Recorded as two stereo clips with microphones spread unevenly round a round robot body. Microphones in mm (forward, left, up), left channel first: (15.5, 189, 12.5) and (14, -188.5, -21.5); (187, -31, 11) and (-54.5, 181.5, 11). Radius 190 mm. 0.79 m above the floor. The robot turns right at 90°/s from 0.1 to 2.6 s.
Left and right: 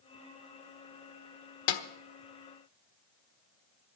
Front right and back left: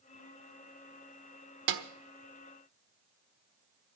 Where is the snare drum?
120° left, 1.2 m; by 1.8 s 135° left, 1.2 m.